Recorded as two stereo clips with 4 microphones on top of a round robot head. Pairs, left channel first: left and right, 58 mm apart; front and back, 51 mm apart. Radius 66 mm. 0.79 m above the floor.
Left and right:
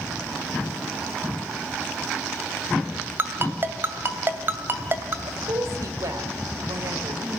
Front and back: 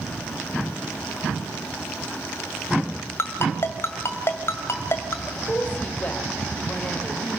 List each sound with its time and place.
3.2 s a ringtone: 40° right, 2 m
5.2 s a woman speaking: 65° right, 4.5 m